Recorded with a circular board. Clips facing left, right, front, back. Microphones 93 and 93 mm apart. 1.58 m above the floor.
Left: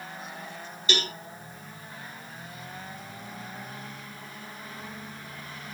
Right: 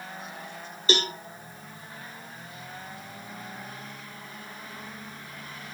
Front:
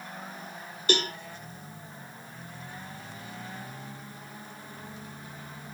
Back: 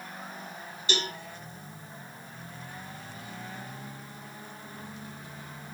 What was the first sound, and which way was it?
A cowbell, 40° right.